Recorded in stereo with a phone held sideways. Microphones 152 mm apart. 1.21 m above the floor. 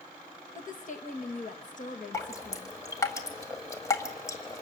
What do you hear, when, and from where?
0.6 s a woman speaking: 55° left (ahead or behind), 1.6 m
2.1 s dripping: 20° left (ahead or behind), 1.7 m